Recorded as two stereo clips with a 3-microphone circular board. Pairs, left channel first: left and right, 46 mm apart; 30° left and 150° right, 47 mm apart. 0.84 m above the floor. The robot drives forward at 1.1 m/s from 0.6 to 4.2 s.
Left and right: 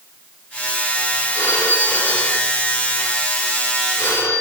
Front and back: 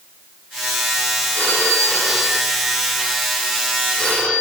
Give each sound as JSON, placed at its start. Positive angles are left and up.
{"t": 1.4, "sound": "a phone ringing", "azimuth_deg": 75, "distance_m": 7.0}